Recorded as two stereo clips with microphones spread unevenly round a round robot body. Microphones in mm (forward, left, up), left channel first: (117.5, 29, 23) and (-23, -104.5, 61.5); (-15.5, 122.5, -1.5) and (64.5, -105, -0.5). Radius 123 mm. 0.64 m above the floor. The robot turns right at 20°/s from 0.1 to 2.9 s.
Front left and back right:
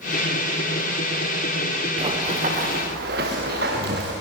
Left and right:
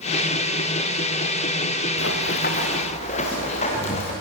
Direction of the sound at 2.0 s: 155° left.